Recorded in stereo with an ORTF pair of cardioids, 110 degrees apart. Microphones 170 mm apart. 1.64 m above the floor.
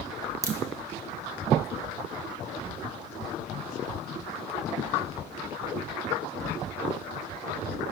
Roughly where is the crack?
Ahead.